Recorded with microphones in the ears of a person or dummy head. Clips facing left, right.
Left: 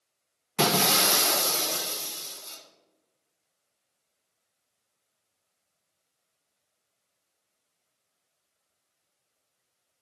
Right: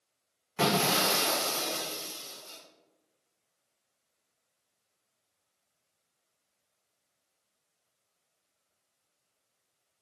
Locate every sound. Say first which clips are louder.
0.6 s breaking glass: left 2 dB; 50° left (ahead or behind), 0.6 m